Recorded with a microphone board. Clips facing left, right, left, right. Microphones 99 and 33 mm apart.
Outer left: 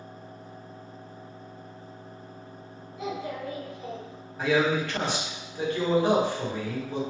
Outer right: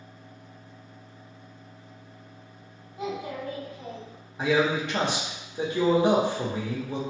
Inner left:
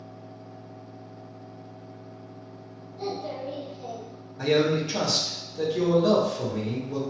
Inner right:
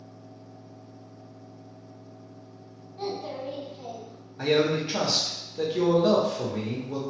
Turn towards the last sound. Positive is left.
turn(degrees=-20)  # may be behind; listen again after turning